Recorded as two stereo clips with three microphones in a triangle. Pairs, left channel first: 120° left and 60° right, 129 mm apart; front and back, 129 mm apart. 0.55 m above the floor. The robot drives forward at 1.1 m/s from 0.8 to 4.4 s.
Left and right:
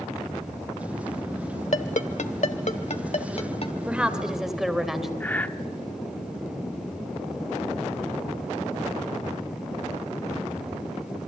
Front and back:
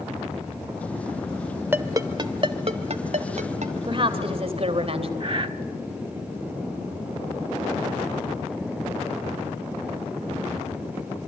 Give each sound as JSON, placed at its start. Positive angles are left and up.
{"t": 1.7, "sound": "a ringtone", "azimuth_deg": 105, "distance_m": 1.2}
{"t": 3.9, "sound": "a woman speaking", "azimuth_deg": -140, "distance_m": 2.5}
{"t": 5.2, "sound": "breathing", "azimuth_deg": -170, "distance_m": 1.0}